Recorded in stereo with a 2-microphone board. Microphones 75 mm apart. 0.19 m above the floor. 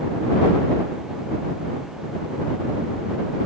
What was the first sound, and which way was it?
Only background noise.